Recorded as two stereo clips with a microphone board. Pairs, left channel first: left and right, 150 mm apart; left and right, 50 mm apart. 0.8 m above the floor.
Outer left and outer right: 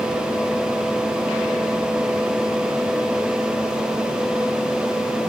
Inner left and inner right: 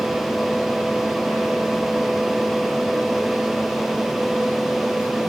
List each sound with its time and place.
Only background noise.